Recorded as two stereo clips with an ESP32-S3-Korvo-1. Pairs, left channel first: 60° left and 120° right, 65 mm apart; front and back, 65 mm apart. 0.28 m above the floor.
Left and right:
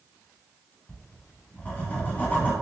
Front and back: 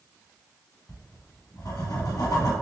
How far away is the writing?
About 1.0 m.